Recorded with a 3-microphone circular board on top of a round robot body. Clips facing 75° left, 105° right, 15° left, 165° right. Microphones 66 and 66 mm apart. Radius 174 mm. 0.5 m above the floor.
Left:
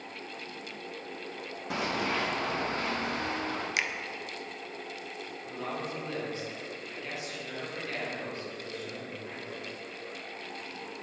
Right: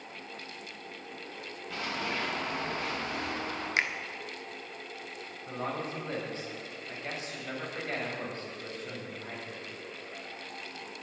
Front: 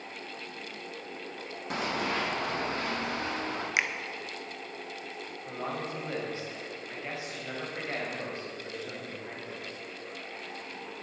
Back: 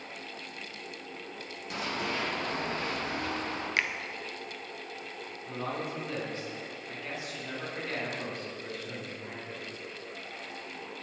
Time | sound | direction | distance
1.7 | running footsteps | 60° left | 1.8 m
3.8 | a finger snap | 55° right | 1.0 m
5.5 | a man speaking | 50° right | 4 m